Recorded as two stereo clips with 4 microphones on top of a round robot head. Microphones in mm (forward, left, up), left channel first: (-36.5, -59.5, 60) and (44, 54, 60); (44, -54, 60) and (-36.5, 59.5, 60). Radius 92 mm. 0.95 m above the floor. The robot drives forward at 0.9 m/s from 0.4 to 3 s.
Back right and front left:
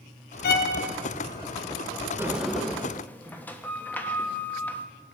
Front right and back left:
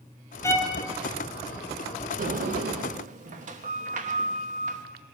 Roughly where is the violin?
Behind right.